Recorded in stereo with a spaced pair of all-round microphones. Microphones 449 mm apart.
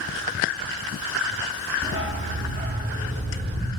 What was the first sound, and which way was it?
A dog barking, 30° right (ahead or behind).